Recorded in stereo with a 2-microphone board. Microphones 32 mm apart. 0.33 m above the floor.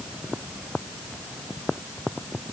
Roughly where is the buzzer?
No buzzer in this recording.